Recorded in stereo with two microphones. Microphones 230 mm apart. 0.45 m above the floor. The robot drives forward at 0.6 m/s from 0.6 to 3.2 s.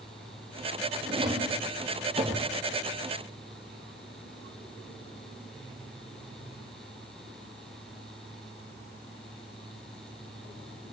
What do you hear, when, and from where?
1.1 s a drawer: 20° right (ahead or behind), 3.5 m; by 2.5 s 30° right (ahead or behind), 3 m